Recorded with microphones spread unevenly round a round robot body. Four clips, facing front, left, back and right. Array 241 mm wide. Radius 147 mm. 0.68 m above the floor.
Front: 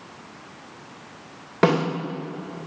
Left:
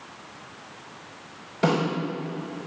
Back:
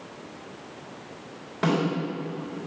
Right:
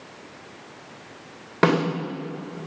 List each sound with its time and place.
1.6 s a snare drum: 30° right, 3.5 m